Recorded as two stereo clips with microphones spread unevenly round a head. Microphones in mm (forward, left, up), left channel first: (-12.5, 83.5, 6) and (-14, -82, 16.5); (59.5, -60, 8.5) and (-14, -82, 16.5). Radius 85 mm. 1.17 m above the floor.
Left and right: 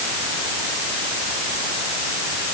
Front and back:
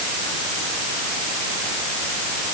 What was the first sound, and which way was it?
Only background noise.